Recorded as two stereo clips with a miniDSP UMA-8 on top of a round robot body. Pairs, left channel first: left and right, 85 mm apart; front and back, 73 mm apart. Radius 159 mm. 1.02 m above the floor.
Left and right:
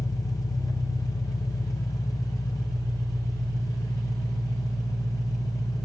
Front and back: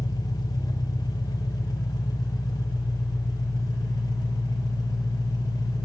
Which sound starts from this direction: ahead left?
An engine running, at 0.0 s.